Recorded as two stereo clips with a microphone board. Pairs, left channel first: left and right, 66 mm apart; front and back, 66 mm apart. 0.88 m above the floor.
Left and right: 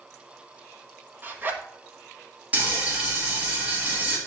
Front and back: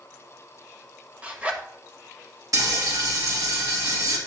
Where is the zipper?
125° right, 1.0 m.